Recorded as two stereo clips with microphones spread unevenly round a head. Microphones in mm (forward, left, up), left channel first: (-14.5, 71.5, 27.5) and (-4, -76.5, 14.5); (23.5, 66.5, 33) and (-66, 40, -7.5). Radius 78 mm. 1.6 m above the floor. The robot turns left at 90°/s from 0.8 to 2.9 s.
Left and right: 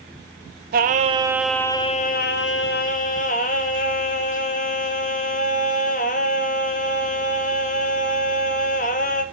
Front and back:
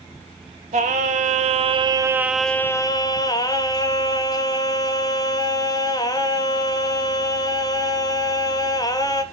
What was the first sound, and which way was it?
Singing, 115° right.